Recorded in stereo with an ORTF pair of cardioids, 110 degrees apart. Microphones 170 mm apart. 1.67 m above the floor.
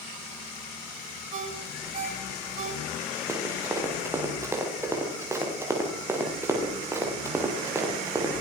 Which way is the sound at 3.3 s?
15° right.